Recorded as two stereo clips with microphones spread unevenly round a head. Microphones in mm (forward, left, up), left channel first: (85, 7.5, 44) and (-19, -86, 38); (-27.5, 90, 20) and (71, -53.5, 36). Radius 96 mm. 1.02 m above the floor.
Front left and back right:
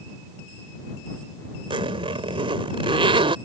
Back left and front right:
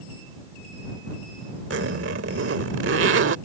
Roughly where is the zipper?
Right.